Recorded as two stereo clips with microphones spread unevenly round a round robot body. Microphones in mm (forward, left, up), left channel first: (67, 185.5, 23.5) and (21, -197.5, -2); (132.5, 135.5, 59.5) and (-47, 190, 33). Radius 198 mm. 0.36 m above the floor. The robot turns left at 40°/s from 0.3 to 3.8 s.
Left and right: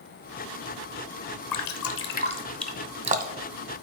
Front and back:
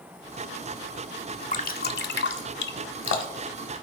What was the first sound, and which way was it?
Dripping, 40° left.